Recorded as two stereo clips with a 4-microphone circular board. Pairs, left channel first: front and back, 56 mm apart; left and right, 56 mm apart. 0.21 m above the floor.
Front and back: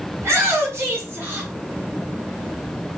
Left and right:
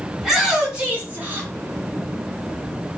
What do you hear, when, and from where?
0.2 s a shout: 170° right, 1.6 m; by 1.5 s 130° right, 1.7 m